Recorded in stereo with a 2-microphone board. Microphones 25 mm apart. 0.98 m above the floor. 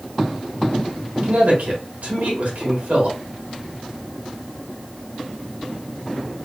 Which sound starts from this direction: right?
A man speaking, at 1.2 s.